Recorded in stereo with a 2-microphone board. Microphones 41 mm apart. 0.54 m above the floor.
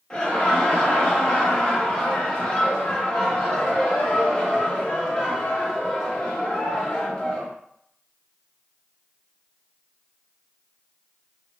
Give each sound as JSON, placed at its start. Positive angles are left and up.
{"t": 0.1, "sound": "laughter", "side_deg": 20, "distance_m": 0.8}